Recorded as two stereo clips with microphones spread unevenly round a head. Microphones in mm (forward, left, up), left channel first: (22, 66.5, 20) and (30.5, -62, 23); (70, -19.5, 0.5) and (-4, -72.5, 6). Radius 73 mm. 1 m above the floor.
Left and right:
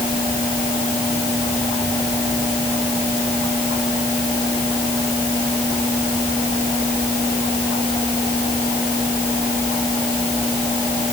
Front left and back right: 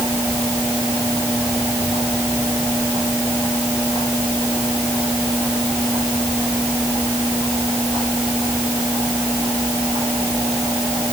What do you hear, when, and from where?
Only background noise.